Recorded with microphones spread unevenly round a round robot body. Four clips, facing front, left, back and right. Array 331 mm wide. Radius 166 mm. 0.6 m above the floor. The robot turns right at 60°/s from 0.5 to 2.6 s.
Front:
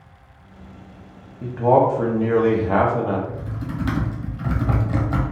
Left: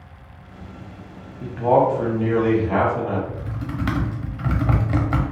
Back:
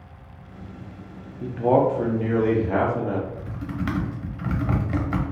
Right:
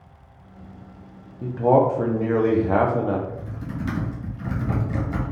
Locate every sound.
1.4 s a man speaking: 165° right, 0.7 m; by 3.2 s 90° right, 0.7 m
3.3 s typing on a keyboard: 90° left, 1.0 m